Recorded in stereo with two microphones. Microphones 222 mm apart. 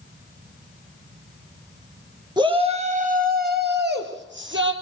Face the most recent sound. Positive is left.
turn(degrees=-65)  # may be behind; listen again after turning